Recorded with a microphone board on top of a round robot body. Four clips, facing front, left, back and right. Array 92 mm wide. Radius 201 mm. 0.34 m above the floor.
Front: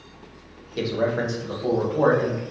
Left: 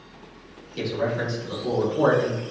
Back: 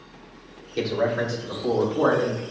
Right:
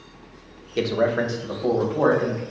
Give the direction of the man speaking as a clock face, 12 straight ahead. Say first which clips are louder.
Right 5 dB, even; 3 o'clock.